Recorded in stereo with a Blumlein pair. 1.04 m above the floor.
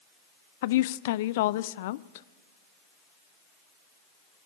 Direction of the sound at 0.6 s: 55° left.